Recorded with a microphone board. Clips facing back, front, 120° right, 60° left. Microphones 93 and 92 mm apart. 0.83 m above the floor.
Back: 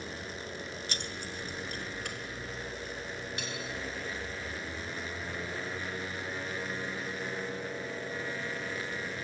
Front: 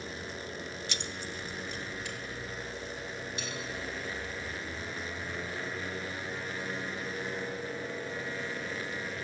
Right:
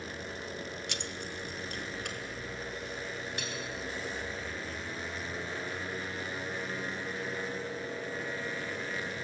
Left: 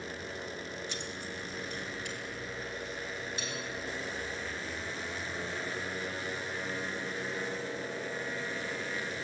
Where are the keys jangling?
135° right, 0.6 m; by 3.5 s 150° right, 4.5 m.